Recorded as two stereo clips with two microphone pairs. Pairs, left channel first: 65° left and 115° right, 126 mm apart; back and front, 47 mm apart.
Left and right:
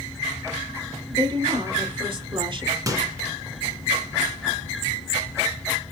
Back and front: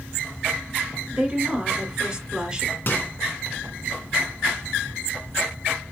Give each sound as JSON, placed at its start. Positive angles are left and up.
{"t": 1.1, "sound": "a woman speaking", "azimuth_deg": -75, "distance_m": 3.0}
{"t": 2.9, "sound": "a microwave", "azimuth_deg": -165, "distance_m": 1.9}